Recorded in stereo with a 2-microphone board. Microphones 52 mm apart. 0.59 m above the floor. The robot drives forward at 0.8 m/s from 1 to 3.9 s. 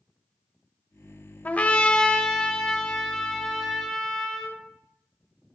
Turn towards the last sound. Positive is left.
turn(degrees=10)  # may be behind; listen again after turning